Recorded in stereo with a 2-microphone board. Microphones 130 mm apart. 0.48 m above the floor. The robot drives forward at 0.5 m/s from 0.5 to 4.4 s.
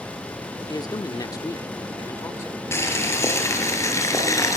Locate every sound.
0.7 s a man speaking: 30° left (ahead or behind), 1.1 m; by 2.6 s 20° left (ahead or behind), 1.5 m
2.7 s boiling: 20° left (ahead or behind), 5 m; by 4.6 s 25° left (ahead or behind), 4 m